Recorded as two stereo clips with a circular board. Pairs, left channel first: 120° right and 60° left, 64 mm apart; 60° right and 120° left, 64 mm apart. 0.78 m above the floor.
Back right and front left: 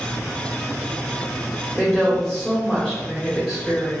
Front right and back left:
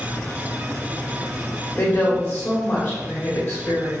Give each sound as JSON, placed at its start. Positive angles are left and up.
{"t": 1.8, "sound": "a woman speaking", "azimuth_deg": -40, "distance_m": 1.3}